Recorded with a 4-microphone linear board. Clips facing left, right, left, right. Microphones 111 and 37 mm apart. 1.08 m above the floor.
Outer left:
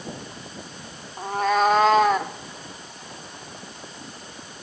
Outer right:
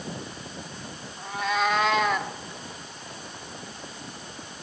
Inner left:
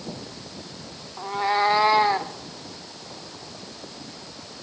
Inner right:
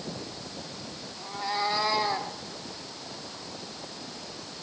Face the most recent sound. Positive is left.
turn(degrees=35)  # may be behind; listen again after turning